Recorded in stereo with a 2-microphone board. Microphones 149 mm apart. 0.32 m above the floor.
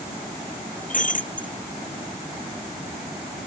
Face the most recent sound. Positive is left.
turn(degrees=60)  # may be behind; listen again after turning